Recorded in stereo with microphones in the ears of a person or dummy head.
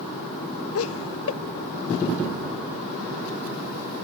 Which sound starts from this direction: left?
Laughter, at 0.8 s.